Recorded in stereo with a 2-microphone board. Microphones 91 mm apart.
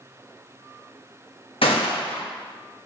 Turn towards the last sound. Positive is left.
turn(degrees=85)